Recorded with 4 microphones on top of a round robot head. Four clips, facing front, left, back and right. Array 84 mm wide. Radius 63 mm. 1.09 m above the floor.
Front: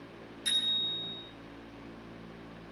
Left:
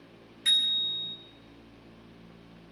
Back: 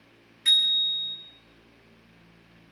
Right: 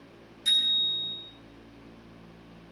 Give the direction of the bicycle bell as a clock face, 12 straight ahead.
7 o'clock.